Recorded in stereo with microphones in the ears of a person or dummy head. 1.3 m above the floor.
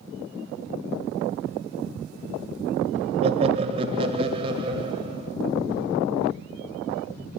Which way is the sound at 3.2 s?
35° right (ahead or behind).